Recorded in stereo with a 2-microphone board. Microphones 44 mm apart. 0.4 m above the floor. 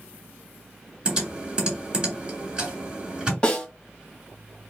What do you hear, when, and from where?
1.1 s typing on a keyboard: 20° right (ahead or behind), 2.5 m
3.4 s a snare drum: 15° left (ahead or behind), 1.5 m